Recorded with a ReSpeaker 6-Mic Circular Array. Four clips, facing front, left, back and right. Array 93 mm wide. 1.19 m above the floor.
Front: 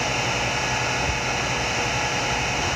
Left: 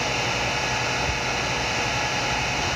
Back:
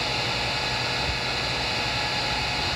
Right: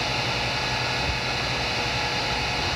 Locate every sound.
Only background noise.